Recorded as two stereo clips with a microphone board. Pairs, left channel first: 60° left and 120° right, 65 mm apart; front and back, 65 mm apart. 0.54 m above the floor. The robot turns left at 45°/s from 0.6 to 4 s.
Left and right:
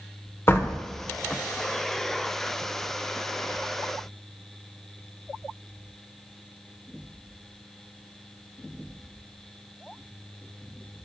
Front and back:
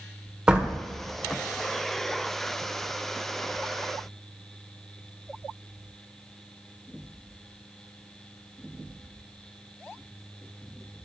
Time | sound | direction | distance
0.5 | a door slam | 105° left | 1.2 m